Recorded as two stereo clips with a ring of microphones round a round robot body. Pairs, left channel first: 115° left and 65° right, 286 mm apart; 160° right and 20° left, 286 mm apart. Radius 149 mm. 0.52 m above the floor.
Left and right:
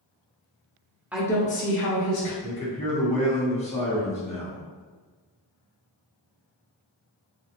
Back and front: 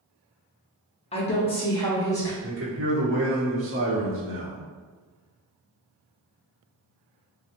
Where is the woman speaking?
140° right, 0.7 m; by 2.3 s 125° left, 1.3 m.